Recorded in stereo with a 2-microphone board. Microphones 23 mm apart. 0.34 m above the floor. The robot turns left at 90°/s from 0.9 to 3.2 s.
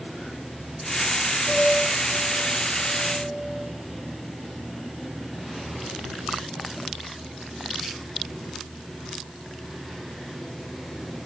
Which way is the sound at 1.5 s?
100° left.